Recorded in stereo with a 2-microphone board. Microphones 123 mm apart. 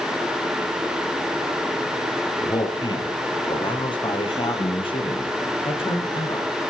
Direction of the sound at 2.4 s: 35° left (ahead or behind).